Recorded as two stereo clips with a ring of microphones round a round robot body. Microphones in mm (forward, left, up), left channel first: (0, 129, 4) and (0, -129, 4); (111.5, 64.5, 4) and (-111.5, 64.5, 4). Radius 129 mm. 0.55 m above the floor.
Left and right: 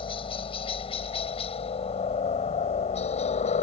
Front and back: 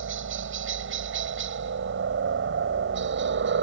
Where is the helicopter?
160° left; by 3.6 s 155° left.